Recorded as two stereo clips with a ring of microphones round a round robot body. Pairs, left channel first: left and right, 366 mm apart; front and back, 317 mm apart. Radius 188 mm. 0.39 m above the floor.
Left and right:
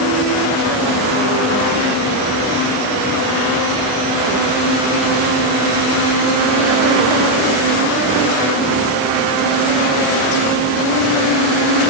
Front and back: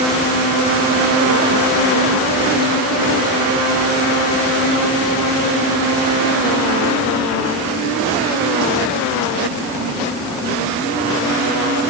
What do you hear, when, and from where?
Only background noise.